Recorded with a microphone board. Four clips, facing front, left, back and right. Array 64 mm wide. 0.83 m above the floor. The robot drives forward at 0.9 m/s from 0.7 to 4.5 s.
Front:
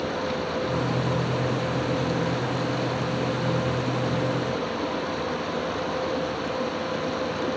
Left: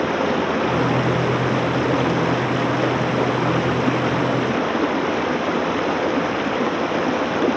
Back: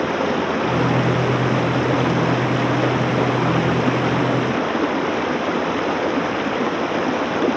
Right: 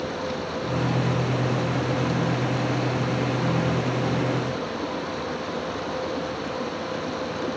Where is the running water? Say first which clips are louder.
Left 9 dB, back 8 dB; 135° left.